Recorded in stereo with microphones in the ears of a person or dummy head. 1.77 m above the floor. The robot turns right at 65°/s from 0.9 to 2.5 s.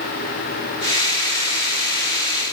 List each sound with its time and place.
Only background noise.